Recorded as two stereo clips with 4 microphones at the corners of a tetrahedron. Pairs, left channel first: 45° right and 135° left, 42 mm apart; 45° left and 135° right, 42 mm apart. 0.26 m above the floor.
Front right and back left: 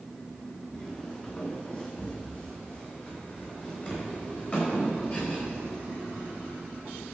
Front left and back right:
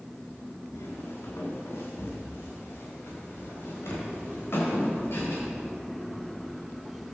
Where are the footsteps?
25° left, 4.5 m; by 5.4 s 10° left, 8 m.